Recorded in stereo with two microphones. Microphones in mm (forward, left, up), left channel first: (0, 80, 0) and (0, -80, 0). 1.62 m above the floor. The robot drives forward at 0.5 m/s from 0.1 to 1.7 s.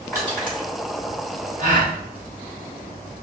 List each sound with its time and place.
0.1 s crushing: 10° left (ahead or behind), 1.7 m
1.6 s a gasp: 50° right (ahead or behind), 0.8 m; by 1.9 s 45° right (ahead or behind), 0.8 m